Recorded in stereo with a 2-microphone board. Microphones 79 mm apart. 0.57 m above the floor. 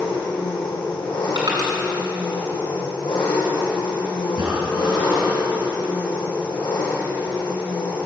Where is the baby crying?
No baby crying in this recording.